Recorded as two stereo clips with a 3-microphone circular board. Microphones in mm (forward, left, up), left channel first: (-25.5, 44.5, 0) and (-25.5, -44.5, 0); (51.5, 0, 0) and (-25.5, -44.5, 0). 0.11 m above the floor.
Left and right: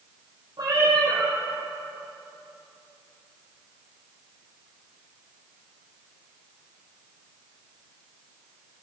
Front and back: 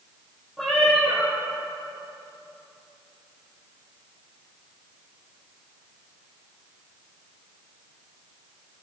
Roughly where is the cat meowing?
Ahead right.